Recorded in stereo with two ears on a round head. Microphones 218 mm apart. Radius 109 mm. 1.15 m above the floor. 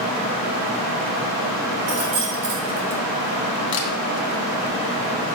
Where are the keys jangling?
65° right (ahead or behind), 1.3 m.